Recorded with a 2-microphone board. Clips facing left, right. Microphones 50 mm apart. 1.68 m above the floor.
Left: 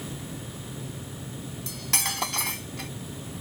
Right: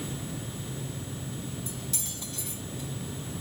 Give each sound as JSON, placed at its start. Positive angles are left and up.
{"t": 1.7, "sound": "cutlery clinking", "side_deg": 75}